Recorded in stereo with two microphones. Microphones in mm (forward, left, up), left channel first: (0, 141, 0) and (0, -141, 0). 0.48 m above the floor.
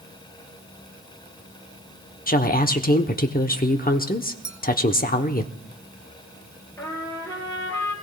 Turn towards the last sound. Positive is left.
turn(degrees=10)  # may be behind; listen again after turning